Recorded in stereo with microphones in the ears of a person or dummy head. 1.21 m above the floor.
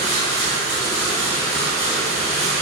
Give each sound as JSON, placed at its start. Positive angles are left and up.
{"t": 0.0, "sound": "running water", "side_deg": -45, "distance_m": 2.0}